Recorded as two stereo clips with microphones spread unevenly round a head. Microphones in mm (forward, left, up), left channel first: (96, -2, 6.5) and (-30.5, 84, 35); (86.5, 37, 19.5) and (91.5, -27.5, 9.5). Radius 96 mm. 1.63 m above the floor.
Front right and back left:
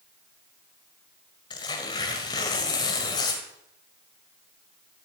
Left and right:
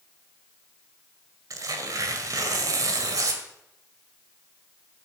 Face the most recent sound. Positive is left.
turn(degrees=-105)